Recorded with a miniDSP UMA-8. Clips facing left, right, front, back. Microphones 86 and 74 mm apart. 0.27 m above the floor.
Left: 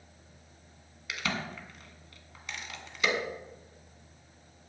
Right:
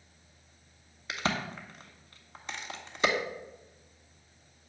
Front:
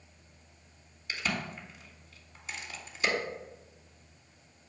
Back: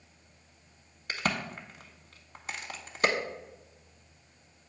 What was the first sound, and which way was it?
A crack, 145° right.